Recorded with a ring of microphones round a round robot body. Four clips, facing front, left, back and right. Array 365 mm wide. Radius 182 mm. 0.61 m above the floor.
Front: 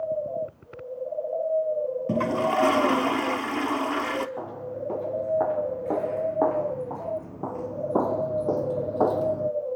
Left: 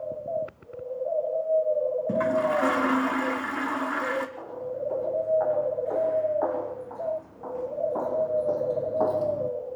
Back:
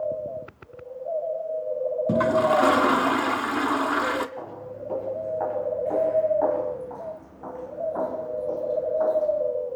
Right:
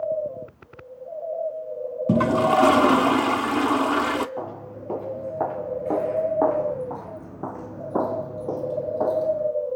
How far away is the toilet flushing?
About 0.7 m.